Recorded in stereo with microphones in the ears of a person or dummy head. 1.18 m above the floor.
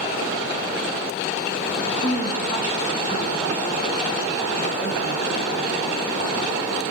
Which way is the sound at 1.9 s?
25° left (ahead or behind).